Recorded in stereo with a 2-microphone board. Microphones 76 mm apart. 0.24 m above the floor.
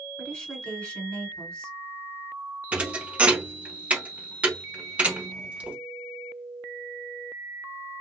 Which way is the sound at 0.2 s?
15° left (ahead or behind).